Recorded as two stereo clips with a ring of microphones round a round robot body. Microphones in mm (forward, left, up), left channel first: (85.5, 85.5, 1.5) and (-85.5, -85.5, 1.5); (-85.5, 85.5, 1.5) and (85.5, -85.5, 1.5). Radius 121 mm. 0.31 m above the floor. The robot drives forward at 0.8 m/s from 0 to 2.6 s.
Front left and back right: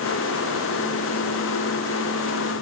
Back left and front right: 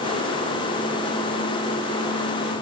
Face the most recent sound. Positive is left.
No sound to turn to.